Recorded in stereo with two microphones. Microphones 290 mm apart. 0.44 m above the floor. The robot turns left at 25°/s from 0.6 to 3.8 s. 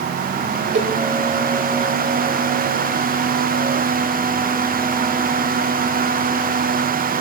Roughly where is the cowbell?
Right.